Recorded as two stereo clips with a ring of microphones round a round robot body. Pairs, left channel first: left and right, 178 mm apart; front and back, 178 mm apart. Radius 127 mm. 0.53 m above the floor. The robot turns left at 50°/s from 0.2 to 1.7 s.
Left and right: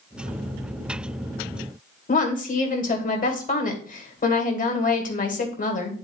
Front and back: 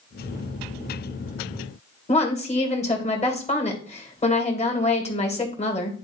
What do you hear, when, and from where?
2.1 s a woman speaking: 50° left, 2.5 m